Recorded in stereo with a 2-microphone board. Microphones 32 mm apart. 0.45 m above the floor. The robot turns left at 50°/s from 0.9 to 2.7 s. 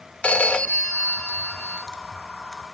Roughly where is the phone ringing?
Left.